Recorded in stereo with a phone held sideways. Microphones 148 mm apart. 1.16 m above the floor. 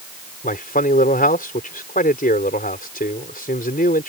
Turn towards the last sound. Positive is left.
turn(degrees=70)  # may be behind; listen again after turning